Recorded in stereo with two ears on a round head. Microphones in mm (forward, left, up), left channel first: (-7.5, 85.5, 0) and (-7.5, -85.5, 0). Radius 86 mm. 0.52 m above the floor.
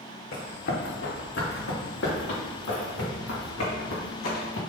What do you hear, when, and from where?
0.3 s running footsteps: 60° left (ahead or behind), 2.5 m; by 4.6 s 80° left, 4 m